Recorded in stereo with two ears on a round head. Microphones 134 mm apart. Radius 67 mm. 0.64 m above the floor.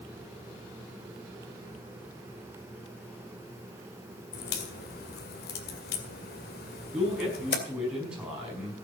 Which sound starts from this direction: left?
A crack, at 4.3 s.